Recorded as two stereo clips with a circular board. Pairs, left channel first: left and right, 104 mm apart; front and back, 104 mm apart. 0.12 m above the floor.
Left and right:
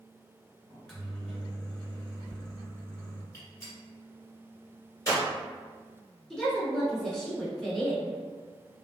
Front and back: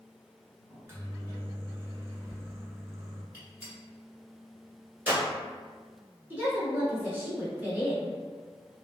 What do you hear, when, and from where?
0.7 s a microwave: 160° left, 1.0 m
3.3 s a gunshot: 125° left, 1.7 m
6.3 s a woman speaking: 165° left, 1.1 m